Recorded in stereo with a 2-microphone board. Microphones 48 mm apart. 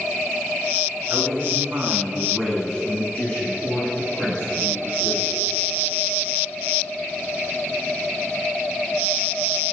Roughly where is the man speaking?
Right.